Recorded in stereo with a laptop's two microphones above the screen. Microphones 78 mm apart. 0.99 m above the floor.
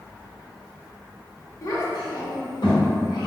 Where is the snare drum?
I don't hear a snare drum.